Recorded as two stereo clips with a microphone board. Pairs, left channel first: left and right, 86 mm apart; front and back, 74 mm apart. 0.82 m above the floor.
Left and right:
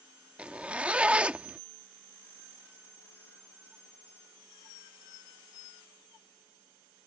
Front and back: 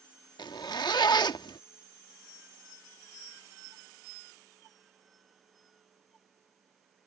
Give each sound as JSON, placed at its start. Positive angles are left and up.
{"t": 0.4, "sound": "a zipper", "azimuth_deg": -15}